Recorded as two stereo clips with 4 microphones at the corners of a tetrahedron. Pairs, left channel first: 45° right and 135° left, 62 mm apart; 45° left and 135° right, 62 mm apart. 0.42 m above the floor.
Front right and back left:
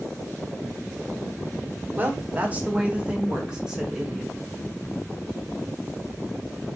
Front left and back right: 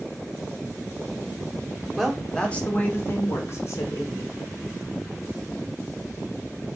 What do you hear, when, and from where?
2.0 s a woman speaking: 140° left, 1.2 m; by 4.3 s 50° left, 2 m